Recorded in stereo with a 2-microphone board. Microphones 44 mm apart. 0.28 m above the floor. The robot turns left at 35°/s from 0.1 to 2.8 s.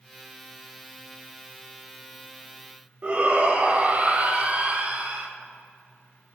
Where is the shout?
35° right (ahead or behind), 1.0 m.